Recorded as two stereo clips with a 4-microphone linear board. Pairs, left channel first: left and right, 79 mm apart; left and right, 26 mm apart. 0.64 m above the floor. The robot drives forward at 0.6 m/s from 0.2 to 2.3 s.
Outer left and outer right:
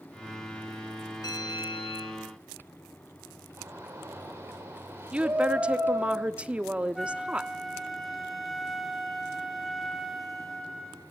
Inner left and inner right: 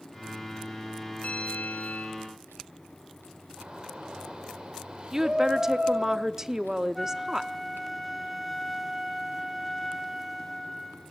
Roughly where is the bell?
Left.